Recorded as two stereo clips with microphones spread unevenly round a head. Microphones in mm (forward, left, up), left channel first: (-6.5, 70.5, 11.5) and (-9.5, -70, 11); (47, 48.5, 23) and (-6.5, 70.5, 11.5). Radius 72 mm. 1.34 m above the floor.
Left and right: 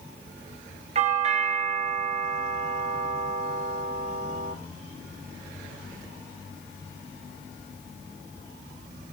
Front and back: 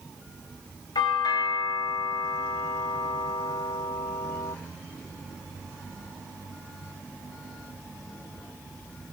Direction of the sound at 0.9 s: 45° right.